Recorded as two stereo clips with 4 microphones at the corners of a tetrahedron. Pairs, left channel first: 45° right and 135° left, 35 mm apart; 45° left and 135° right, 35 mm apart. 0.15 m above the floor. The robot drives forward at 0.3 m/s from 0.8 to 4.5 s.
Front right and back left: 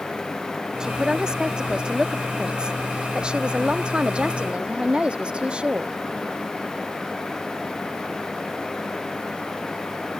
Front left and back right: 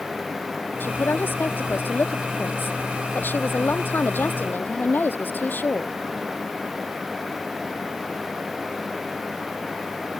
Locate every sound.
0.8 s a man speaking: 65° left; by 5.9 s 75° left